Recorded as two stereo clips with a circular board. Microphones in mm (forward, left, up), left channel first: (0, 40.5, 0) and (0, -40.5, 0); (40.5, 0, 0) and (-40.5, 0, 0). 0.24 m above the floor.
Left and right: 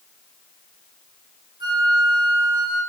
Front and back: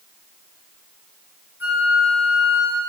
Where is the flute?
115° right, 2 m.